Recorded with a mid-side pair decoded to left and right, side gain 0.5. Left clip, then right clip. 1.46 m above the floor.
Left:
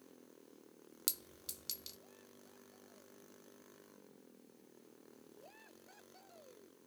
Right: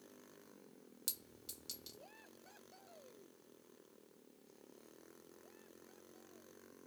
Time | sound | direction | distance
1.1 | a clink | 45° left | 1.1 m